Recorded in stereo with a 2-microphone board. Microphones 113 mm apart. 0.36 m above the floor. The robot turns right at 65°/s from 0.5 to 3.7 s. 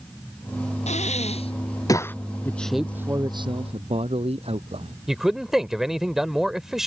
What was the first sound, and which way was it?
Breathing, 80° left.